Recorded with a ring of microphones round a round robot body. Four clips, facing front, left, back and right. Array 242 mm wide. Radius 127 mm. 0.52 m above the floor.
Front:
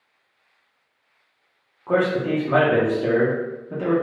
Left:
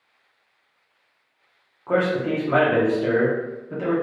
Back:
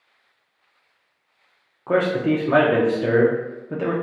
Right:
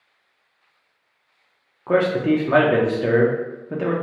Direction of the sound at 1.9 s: 120° right.